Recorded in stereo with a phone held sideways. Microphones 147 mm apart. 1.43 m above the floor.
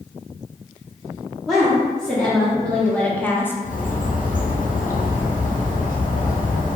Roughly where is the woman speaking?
Centre.